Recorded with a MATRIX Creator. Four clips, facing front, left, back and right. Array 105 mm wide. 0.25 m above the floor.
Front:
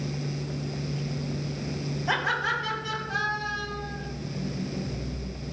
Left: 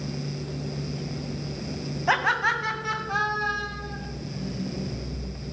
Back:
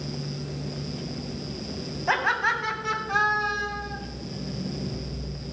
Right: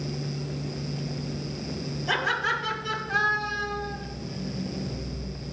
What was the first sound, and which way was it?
Laughter, 115° left.